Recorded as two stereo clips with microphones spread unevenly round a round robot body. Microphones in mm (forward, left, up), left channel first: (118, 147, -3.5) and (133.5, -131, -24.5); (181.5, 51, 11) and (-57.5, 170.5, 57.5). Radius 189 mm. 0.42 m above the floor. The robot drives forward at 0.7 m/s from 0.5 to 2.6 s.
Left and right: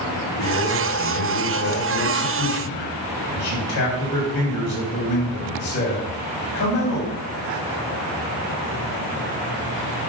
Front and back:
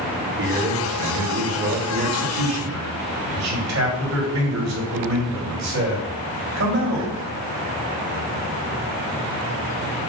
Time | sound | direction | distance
0.4 | a man speaking | 100° left | 2.5 m